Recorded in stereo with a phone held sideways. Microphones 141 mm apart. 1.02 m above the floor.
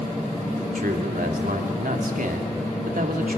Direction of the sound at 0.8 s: 80° right.